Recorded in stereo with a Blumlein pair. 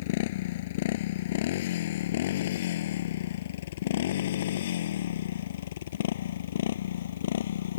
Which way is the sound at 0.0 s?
50° left.